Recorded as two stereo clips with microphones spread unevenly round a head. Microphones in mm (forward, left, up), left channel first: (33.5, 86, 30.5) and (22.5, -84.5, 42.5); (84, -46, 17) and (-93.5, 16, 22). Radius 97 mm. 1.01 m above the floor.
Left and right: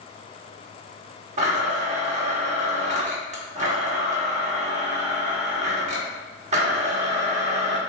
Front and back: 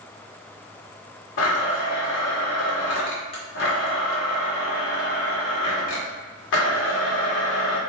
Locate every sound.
1.4 s a blender: 45° right, 1.4 m